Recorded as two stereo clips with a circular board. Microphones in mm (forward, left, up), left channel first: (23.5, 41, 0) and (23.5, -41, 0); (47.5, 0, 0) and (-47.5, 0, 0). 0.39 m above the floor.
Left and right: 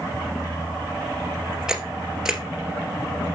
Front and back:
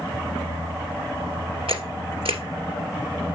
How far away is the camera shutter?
About 2.0 m.